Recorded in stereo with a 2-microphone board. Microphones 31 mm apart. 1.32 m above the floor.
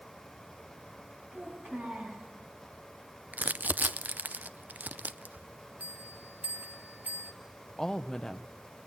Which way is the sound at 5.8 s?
70° right (ahead or behind).